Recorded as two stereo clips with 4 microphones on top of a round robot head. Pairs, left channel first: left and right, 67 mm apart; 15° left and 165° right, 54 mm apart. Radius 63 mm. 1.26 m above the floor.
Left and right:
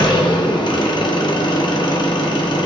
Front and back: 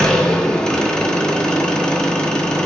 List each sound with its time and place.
0.0 s an engine running: 90° left, 0.7 m